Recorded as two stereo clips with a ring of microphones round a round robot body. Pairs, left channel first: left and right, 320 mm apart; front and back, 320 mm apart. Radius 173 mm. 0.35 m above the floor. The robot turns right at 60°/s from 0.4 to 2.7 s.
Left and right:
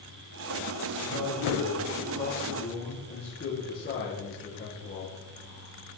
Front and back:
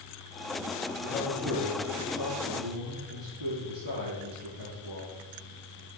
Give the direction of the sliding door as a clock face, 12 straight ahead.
No sliding door in this recording.